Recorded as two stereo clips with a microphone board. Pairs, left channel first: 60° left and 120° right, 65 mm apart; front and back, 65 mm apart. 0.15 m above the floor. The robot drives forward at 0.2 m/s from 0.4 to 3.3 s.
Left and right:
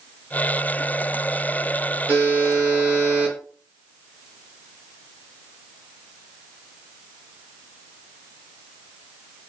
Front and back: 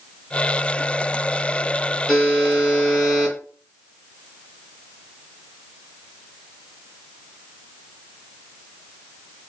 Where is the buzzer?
110° right, 1.2 m; by 3.4 s 130° right, 1.3 m.